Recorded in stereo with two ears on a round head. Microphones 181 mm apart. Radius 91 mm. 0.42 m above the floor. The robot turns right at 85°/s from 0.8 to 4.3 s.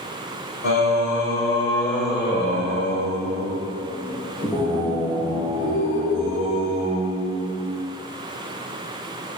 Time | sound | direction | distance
0.6 | singing | 70° left | 4 m